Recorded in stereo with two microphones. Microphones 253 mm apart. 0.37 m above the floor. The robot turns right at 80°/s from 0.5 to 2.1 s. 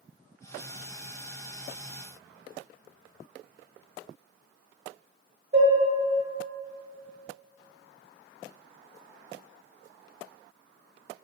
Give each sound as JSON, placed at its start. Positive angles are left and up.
{"t": 5.5, "sound": "dishes clattering", "side_deg": -45, "distance_m": 0.7}